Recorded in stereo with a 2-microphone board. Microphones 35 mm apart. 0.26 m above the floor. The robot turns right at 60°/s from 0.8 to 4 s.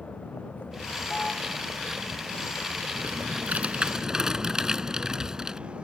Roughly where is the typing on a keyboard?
Right.